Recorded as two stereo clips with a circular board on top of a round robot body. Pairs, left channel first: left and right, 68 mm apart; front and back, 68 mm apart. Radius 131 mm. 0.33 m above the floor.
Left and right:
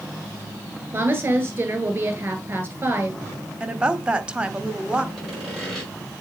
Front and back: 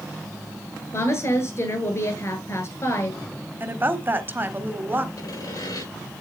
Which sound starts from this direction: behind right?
A woman speaking, at 3.6 s.